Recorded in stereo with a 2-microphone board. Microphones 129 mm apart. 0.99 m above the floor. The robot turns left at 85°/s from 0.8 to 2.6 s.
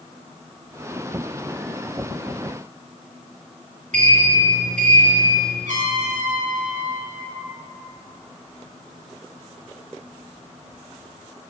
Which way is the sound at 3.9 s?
75° right (ahead or behind).